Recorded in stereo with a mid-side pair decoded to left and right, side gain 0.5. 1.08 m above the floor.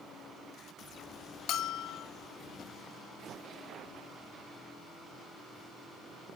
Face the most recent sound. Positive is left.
turn(degrees=70)